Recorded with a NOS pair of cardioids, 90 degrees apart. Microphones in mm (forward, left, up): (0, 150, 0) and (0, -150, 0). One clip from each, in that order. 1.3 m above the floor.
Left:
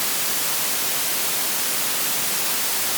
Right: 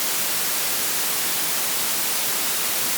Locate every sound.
Only background noise.